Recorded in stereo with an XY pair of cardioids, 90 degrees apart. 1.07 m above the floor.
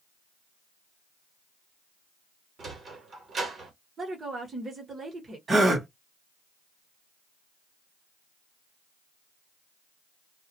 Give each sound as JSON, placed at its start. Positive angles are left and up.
{"t": 2.6, "sound": "a sliding door", "azimuth_deg": -55, "distance_m": 1.1}
{"t": 4.0, "sound": "a woman speaking", "azimuth_deg": -45, "distance_m": 1.0}
{"t": 5.5, "sound": "a gasp", "azimuth_deg": -40, "distance_m": 1.1}